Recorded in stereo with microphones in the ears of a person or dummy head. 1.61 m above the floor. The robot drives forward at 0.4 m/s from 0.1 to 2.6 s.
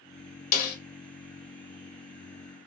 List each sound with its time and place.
0.5 s a snare drum: 45° left (ahead or behind), 0.9 m